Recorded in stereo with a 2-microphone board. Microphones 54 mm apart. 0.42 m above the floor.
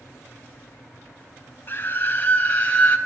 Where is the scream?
40° left (ahead or behind), 3.5 m; by 3.0 s 25° left (ahead or behind), 3 m.